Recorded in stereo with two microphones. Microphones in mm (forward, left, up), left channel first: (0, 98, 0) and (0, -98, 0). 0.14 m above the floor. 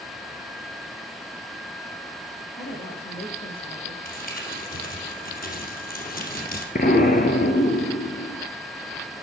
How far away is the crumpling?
About 2.5 m.